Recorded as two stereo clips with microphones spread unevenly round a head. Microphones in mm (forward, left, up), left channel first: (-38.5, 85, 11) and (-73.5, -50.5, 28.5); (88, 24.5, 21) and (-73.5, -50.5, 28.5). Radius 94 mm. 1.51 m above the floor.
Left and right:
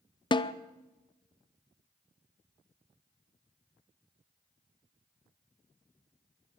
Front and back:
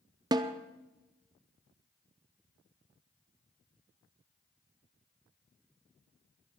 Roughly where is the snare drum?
Behind left.